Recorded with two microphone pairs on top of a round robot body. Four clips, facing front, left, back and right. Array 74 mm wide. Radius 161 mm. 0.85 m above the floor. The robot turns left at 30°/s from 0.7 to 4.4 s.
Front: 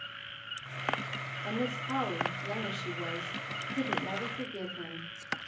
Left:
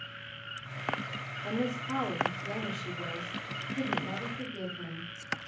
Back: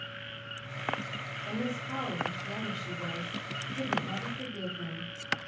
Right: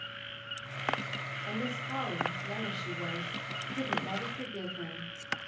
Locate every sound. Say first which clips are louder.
1.4 s a woman speaking: left 5 dB, front 1 dB; 55° left, 3.5 m; by 5.1 s 35° right, 3.5 m